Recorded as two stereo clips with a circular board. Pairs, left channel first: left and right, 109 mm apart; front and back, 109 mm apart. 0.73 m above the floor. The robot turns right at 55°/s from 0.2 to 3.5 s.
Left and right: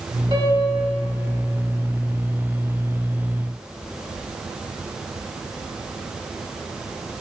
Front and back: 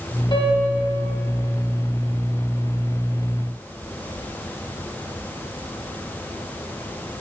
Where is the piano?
45° right, 1.1 m; by 0.8 s 15° right, 1.1 m.